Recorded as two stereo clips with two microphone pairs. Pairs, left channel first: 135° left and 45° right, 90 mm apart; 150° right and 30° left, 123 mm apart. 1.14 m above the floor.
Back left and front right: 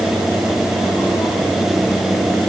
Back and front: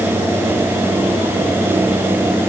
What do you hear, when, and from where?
Only background noise.